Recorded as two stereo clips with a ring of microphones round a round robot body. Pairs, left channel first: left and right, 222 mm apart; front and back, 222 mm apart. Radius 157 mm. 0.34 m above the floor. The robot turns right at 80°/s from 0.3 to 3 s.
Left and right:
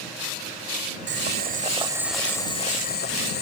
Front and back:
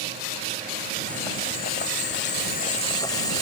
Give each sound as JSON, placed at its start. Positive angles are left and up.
{"t": 1.1, "sound": "boiling", "azimuth_deg": -85}